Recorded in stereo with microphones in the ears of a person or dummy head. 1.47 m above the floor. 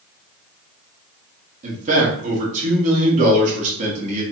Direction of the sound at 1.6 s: 40° right (ahead or behind).